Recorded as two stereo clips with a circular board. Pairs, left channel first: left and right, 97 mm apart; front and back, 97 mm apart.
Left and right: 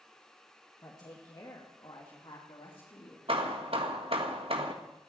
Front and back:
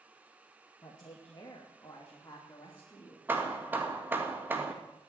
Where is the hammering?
110° right, 1.9 m.